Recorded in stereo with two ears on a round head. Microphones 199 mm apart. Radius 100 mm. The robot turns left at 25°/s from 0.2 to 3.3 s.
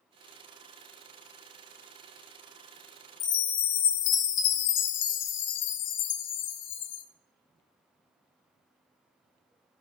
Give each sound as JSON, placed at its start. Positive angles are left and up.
{"t": 3.2, "sound": "a chime", "side_deg": 55, "distance_m": 0.8}